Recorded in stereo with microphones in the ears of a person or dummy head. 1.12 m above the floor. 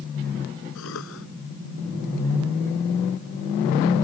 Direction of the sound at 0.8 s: 70° left (ahead or behind).